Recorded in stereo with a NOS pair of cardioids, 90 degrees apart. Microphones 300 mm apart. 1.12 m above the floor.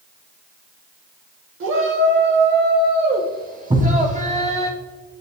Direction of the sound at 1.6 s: 45° right.